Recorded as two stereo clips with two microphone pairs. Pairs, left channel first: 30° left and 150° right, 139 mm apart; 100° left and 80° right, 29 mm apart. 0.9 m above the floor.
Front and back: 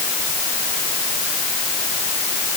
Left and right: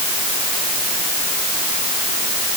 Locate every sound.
Only background noise.